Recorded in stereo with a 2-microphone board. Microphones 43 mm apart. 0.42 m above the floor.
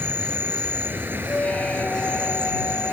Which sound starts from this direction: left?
A squeak, at 1.3 s.